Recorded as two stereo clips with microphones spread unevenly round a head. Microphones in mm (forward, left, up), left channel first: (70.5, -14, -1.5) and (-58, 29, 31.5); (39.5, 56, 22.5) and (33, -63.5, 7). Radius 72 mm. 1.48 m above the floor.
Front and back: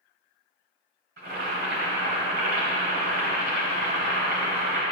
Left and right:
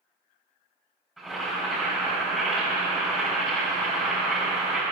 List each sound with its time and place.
1.2 s boiling: 175° left, 4 m